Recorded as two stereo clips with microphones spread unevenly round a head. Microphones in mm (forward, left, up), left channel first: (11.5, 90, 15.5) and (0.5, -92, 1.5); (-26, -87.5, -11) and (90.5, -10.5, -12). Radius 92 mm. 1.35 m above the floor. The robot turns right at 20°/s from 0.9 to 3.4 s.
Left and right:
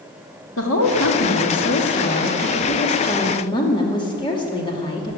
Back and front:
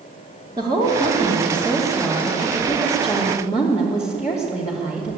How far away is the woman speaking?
About 2.5 m.